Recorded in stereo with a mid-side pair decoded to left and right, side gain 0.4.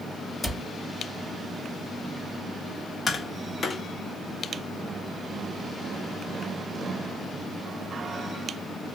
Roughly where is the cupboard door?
Ahead.